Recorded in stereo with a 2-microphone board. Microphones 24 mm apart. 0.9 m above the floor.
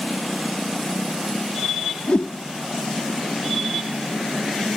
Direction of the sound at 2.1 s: 60° left (ahead or behind).